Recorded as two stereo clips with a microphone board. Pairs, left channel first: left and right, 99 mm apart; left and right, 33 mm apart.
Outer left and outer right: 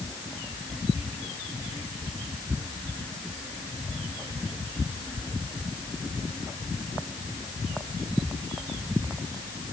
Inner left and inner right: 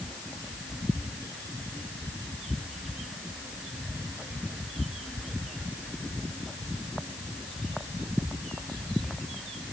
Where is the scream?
No scream in this recording.